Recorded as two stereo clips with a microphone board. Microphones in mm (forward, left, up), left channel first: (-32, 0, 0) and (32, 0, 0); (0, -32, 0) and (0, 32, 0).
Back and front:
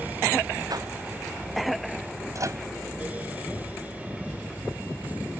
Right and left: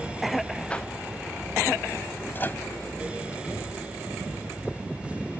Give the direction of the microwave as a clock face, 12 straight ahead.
1 o'clock.